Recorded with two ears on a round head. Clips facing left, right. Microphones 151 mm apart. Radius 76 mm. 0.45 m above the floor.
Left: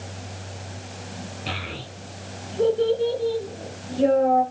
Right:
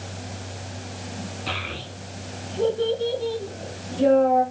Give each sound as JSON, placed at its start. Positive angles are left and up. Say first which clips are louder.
{"t": 1.5, "sound": "a child speaking", "louder": "right 1 dB", "side_deg": 25, "distance_m": 3.0}